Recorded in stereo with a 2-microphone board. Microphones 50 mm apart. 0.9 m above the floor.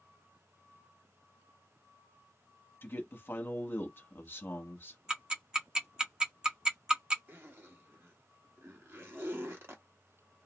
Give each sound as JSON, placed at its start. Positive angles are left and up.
{"t": 2.8, "sound": "a man speaking", "side_deg": 45, "distance_m": 1.0}
{"t": 5.1, "sound": "ticking", "side_deg": -15, "distance_m": 1.0}
{"t": 7.3, "sound": "a zipper", "side_deg": -50, "distance_m": 1.3}